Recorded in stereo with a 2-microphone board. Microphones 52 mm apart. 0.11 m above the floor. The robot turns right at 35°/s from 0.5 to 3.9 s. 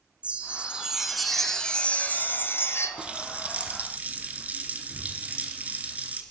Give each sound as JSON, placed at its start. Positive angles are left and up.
{"t": 0.2, "sound": "a chime", "azimuth_deg": -25, "distance_m": 1.0}
{"t": 3.0, "sound": "a running tap", "azimuth_deg": -130, "distance_m": 1.1}